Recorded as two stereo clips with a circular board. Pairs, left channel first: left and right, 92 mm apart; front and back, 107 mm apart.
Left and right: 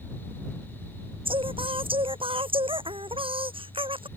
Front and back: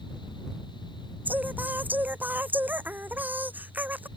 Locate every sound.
1.2 s singing: 105° right